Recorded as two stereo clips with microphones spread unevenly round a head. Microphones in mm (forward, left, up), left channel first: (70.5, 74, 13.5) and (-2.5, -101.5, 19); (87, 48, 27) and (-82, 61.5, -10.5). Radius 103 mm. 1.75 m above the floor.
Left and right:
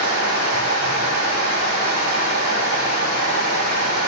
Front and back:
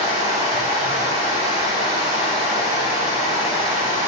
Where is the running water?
120° right, 2 m.